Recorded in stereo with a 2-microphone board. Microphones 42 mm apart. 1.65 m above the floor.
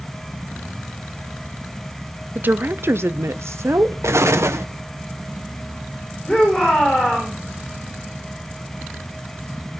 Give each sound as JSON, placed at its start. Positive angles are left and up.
{"t": 2.4, "sound": "a woman speaking", "side_deg": -40, "distance_m": 0.8}
{"t": 4.0, "sound": "an explosion", "side_deg": -85, "distance_m": 1.3}
{"t": 6.3, "sound": "a shout", "side_deg": 15, "distance_m": 7.5}